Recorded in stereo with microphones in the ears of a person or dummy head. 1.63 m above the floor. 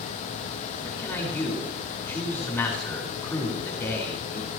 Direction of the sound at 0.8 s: 15° left (ahead or behind).